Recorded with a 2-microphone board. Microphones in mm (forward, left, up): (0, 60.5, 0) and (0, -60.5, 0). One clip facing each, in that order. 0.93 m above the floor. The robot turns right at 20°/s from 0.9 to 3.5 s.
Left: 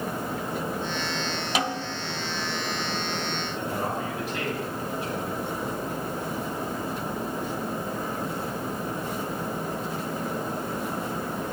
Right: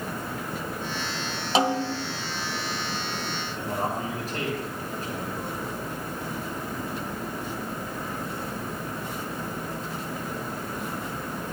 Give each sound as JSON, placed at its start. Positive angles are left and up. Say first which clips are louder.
{"t": 1.6, "sound": "a snare drum", "louder": "right 8 dB", "side_deg": -30, "distance_m": 0.5}
{"t": 3.6, "sound": "a man speaking", "louder": "right 2 dB", "side_deg": -40, "distance_m": 6.5}